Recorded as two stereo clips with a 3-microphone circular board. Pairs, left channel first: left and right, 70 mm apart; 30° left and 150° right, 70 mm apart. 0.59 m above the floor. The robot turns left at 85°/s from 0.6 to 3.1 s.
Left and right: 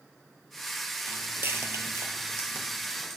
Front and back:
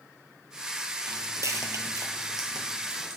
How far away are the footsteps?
About 1.1 m.